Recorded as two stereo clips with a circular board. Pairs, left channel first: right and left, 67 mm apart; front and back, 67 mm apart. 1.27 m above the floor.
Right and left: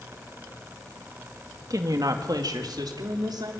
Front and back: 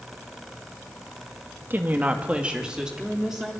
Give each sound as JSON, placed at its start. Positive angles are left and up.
{"t": 1.7, "sound": "a woman speaking", "azimuth_deg": 120, "distance_m": 2.0}